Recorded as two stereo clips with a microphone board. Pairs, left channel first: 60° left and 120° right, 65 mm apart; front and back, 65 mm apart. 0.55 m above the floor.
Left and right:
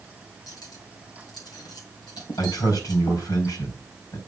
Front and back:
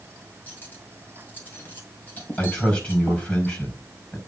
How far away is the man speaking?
About 4 m.